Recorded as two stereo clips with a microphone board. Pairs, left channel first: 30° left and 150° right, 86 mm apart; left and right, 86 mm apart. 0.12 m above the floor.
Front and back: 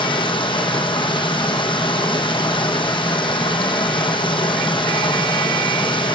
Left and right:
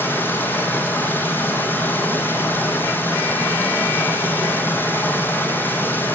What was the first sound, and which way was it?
Running water, 25° left.